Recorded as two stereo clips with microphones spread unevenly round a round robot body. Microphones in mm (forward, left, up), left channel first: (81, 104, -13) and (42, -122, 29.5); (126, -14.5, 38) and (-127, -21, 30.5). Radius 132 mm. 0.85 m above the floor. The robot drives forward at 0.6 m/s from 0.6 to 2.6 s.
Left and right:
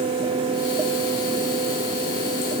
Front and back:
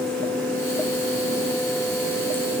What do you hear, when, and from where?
Only background noise.